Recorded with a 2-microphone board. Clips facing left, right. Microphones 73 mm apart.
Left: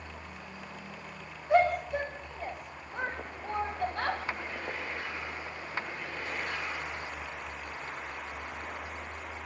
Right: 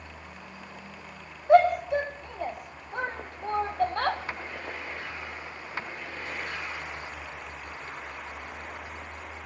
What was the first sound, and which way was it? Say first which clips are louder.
A shout: right 6 dB; 75° right (ahead or behind).